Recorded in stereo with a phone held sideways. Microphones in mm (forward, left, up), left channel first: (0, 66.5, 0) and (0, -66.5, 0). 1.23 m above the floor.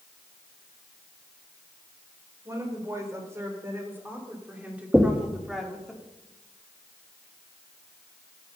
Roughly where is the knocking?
Centre.